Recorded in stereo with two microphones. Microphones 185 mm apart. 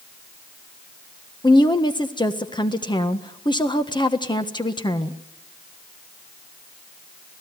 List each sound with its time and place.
1.4 s a woman speaking: 25° left (ahead or behind), 1.4 m